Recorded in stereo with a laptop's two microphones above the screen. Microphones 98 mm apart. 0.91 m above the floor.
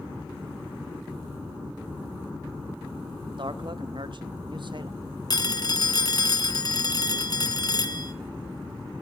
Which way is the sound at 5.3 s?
45° left (ahead or behind).